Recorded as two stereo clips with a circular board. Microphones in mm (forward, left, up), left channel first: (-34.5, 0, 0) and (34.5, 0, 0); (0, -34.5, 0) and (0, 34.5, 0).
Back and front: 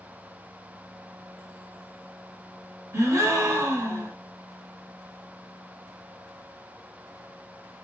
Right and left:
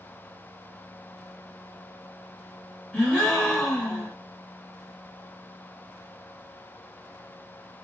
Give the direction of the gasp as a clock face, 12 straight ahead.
1 o'clock.